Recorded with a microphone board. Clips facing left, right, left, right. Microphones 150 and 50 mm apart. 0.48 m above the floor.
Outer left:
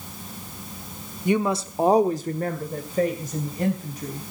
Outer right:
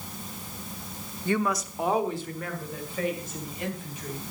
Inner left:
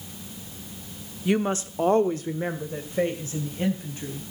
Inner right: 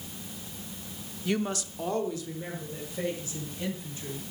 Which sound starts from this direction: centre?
A woman speaking, at 1.2 s.